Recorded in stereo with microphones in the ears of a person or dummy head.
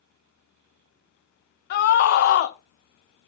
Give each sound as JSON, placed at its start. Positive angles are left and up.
{"t": 1.7, "sound": "a scream", "side_deg": 45, "distance_m": 1.4}